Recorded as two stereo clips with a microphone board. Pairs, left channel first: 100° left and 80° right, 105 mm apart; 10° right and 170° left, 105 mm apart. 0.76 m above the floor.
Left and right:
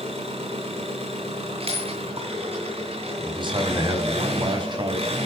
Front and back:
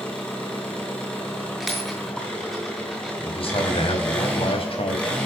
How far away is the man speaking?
About 5 m.